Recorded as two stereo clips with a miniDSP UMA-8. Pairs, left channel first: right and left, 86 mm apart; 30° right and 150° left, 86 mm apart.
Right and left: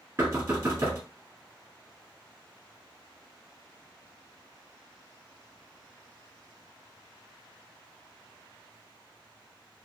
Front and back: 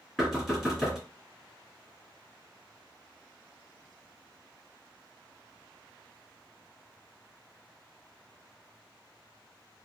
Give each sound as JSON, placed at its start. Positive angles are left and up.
{"t": 0.2, "sound": "knocking", "azimuth_deg": 55, "distance_m": 1.3}